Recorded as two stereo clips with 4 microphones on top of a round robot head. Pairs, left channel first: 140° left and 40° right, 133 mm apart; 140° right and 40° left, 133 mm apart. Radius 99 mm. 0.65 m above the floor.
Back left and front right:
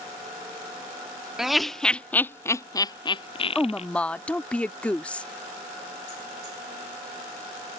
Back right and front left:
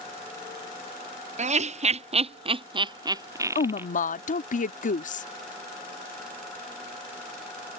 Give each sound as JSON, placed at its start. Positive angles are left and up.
{"t": 1.4, "sound": "laughter", "azimuth_deg": 45}
{"t": 3.5, "sound": "a woman speaking", "azimuth_deg": -140}